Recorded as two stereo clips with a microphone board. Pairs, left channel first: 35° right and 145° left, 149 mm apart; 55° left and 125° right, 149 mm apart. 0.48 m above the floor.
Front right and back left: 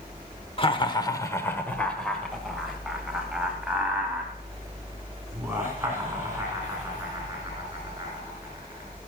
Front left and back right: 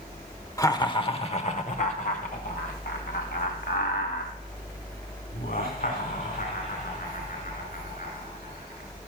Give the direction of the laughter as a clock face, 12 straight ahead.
12 o'clock.